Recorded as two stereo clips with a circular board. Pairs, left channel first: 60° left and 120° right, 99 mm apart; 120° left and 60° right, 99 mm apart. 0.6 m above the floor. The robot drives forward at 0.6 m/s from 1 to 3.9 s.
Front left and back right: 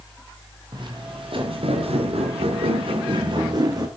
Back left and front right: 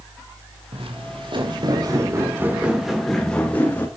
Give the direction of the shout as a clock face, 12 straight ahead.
I don't hear a shout.